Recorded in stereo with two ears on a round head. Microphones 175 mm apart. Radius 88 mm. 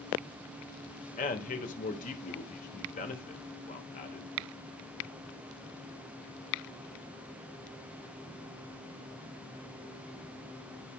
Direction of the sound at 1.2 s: 40° left (ahead or behind).